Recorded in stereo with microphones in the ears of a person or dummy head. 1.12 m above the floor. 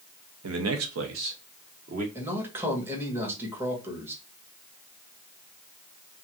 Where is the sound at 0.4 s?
85° right, 0.9 m; by 2.0 s 40° right (ahead or behind), 1.0 m.